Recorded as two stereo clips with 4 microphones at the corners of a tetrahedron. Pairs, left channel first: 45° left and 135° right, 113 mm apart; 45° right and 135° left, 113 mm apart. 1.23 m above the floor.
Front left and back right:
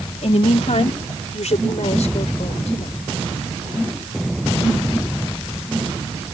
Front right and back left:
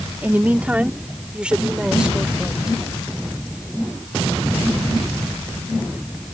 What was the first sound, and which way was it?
A woman speaking, 60° left.